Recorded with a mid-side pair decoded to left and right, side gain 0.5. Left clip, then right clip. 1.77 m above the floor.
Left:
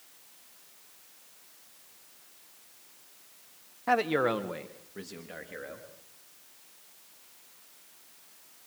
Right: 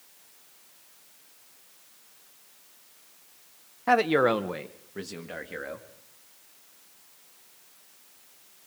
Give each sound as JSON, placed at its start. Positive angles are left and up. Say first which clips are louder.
{"t": 3.9, "sound": "a man speaking", "louder": "right 5 dB", "azimuth_deg": -25, "distance_m": 1.4}